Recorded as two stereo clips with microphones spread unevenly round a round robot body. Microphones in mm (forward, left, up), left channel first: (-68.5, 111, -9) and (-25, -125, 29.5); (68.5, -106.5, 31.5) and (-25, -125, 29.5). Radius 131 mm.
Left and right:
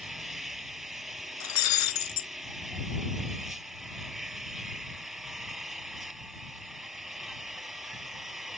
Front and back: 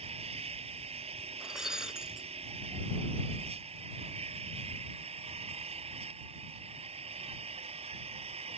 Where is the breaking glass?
105° left.